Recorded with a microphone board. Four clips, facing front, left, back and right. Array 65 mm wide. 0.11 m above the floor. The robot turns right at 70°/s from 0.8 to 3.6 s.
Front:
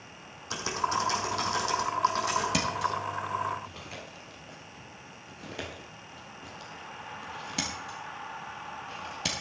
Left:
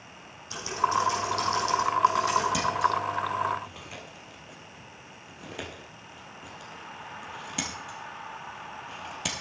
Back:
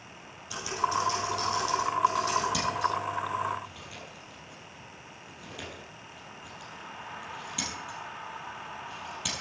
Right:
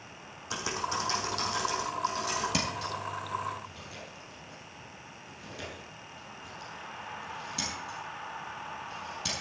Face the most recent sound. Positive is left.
turn(degrees=50)